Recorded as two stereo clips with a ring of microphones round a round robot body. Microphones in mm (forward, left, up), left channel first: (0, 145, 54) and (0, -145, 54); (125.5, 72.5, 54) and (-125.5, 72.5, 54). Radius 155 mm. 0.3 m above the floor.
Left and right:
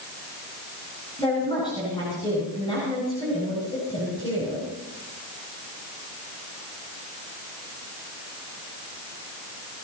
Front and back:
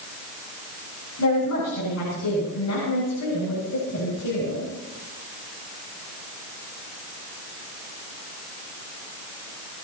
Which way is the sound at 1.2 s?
15° left.